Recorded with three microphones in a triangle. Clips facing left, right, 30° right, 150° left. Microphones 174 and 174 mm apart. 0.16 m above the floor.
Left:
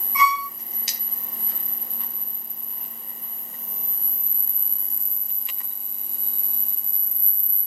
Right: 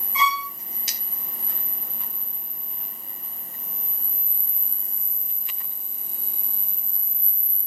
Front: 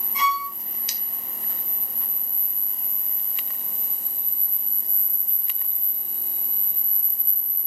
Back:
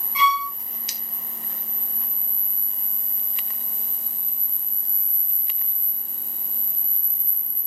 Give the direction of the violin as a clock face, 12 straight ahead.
1 o'clock.